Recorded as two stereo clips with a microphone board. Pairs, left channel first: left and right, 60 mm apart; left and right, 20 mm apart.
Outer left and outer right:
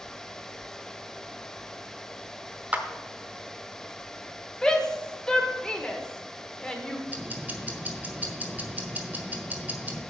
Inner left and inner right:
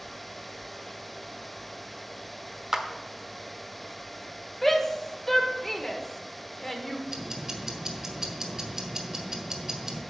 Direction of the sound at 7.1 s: 30° right (ahead or behind).